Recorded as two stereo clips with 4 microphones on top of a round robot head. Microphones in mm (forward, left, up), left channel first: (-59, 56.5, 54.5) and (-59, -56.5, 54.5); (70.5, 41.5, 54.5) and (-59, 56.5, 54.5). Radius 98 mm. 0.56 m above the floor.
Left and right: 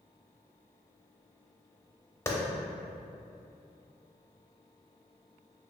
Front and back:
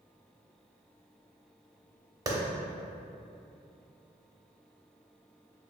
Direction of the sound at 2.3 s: 140° left.